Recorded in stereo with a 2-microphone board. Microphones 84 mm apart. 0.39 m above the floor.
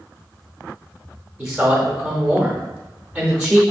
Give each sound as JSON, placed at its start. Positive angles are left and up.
{"t": 1.4, "sound": "a man speaking", "side_deg": -10, "distance_m": 0.8}